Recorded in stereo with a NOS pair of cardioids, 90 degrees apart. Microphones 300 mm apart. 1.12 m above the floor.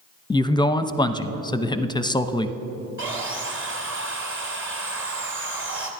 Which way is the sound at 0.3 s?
15° left.